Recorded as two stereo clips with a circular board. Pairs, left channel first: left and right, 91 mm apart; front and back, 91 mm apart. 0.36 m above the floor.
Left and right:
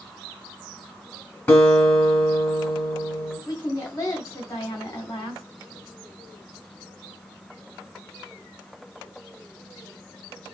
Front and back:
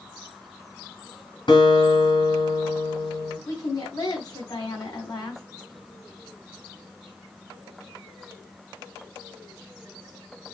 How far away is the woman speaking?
About 3 m.